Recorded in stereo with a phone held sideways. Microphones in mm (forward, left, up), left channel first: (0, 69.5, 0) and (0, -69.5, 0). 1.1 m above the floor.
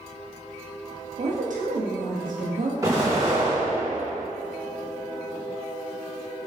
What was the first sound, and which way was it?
A woman speaking, 65° right (ahead or behind).